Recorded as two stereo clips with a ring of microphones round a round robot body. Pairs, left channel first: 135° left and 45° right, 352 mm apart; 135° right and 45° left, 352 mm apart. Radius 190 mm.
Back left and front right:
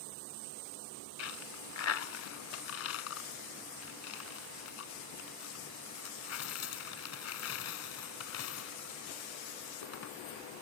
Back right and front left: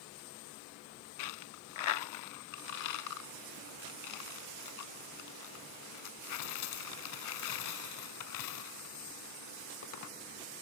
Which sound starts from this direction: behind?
A dropped coin, at 1.2 s.